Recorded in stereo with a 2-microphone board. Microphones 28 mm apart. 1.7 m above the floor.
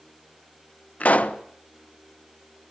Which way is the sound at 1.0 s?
55° left (ahead or behind).